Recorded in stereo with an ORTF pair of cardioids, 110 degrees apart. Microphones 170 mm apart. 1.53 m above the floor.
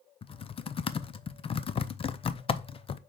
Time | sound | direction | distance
0.2 | typing on a keyboard | 35° left | 0.6 m